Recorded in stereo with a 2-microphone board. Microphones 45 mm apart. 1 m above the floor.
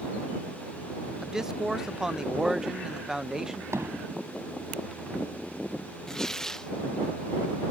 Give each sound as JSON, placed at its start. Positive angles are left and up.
{"t": 1.2, "sound": "a man speaking", "side_deg": -15}
{"t": 3.7, "sound": "hammering", "side_deg": -80}
{"t": 6.1, "sound": "tearing paper", "side_deg": 10}